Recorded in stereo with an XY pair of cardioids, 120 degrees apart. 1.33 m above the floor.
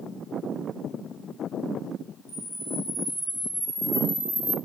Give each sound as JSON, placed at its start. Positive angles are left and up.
{"t": 2.3, "sound": "a camera shutter", "azimuth_deg": 0, "distance_m": 5.5}